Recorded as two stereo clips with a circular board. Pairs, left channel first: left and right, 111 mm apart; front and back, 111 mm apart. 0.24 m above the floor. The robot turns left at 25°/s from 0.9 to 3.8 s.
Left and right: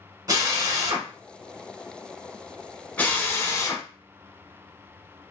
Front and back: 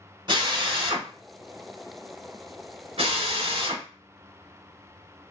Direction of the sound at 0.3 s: 140° right.